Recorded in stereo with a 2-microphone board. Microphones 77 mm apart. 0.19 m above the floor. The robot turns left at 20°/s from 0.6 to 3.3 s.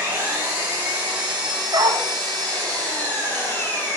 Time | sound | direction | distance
0.0 | an engine running | 155° right | 6.5 m
1.7 | a dog barking | 70° right (ahead or behind) | 1.4 m